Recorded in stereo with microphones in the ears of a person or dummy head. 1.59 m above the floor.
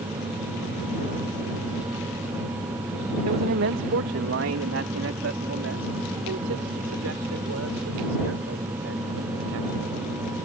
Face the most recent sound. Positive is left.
turn(degrees=-90)